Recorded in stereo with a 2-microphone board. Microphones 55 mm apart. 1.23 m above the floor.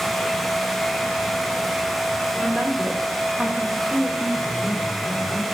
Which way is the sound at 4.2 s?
60° left (ahead or behind).